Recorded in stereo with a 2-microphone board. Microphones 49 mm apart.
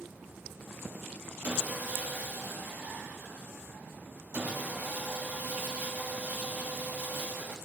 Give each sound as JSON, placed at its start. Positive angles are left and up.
{"t": 1.4, "sound": "sawing", "side_deg": -35, "distance_m": 1.9}